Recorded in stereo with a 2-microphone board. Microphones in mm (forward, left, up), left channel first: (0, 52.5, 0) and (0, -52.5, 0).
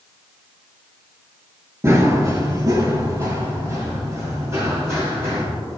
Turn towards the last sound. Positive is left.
turn(degrees=-30)  # may be behind; listen again after turning